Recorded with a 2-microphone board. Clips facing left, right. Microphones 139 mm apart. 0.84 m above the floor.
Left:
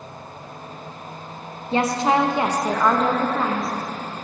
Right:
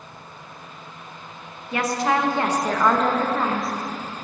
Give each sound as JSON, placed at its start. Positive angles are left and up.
{"t": 1.7, "sound": "a woman speaking", "side_deg": 25, "distance_m": 0.9}